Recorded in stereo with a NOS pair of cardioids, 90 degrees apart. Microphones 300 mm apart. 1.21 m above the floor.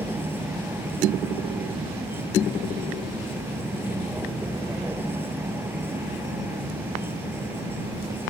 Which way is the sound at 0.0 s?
5° right.